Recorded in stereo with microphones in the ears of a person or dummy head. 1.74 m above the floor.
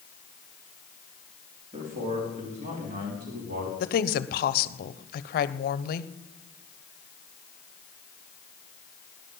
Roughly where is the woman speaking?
Left.